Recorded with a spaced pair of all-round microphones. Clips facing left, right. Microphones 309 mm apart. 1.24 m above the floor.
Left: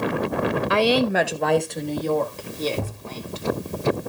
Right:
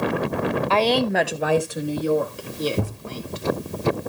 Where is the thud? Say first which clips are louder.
Right 3 dB; 20° right (ahead or behind), 5 m.